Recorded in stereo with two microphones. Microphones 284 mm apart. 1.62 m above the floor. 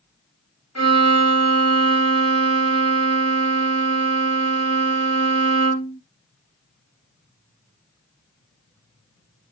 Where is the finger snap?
I don't hear a finger snap.